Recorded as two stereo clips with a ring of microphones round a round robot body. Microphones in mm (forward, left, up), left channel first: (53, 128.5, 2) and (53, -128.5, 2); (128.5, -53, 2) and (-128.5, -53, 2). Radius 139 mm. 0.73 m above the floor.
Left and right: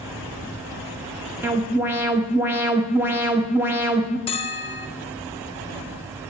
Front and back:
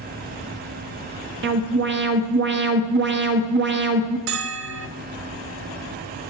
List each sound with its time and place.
1.4 s an alarm: 170° right, 1.2 m
4.3 s a bell: 155° left, 0.5 m